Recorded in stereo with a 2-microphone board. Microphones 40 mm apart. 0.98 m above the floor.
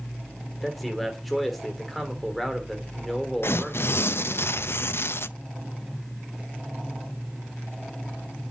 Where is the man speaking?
Centre (ahead or behind), 2.5 m.